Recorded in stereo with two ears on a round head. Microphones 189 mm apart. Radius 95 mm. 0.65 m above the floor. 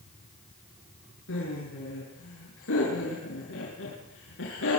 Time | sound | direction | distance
1.3 | laughter | 60° left (ahead or behind) | 7.5 m